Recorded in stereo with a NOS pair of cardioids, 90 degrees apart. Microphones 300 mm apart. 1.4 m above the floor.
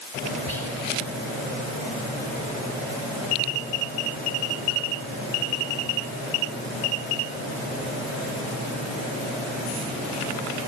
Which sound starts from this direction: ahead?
Whispering, at 0.5 s.